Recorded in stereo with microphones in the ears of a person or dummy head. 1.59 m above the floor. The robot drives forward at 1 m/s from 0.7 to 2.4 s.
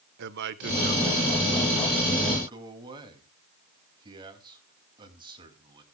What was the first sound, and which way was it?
A man speaking, 60° right (ahead or behind).